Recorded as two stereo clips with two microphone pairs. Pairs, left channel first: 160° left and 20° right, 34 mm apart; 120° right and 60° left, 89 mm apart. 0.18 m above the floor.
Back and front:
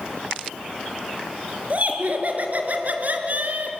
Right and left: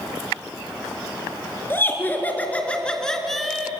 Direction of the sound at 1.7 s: 55° right.